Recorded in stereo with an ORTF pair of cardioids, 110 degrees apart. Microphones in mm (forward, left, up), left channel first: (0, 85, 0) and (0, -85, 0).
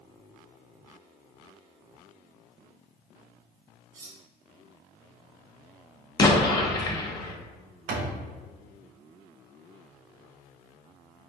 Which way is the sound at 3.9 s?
60° right.